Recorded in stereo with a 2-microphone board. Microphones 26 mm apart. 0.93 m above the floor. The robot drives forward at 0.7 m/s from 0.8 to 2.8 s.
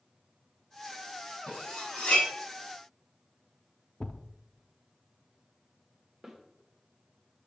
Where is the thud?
25° left (ahead or behind), 0.6 m.